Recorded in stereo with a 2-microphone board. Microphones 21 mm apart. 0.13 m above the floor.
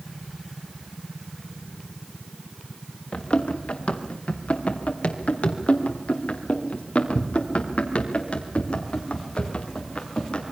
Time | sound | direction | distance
3.1 | running footsteps | 65° left (ahead or behind) | 3 m